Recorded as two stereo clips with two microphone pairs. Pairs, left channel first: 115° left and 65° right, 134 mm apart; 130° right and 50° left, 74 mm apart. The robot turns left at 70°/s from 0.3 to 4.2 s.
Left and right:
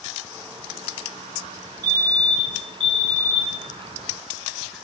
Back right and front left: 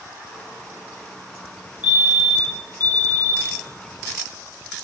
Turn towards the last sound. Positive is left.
turn(degrees=180)